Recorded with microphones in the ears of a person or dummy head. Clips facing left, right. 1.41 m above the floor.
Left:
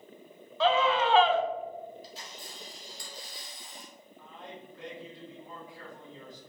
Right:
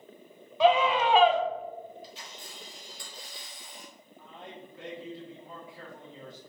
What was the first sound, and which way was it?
A scream, 10° right (ahead or behind).